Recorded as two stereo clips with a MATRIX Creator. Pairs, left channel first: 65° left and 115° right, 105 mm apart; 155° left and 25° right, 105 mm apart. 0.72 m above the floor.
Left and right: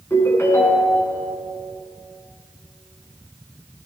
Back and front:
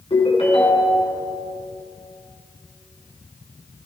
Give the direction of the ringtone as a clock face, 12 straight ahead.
8 o'clock.